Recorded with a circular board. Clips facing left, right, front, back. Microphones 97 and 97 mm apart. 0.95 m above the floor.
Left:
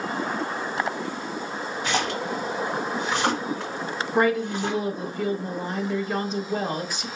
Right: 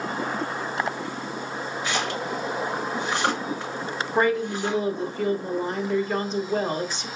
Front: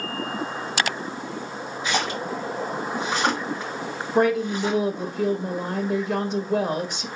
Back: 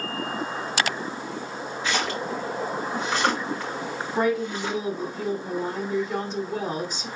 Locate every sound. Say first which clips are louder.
1.8 s a splash: left 2 dB, front 1 dB; 75° left, 2.5 m
4.2 s a woman speaking: left 1 dB, front 4 dB; 10° left, 1.2 m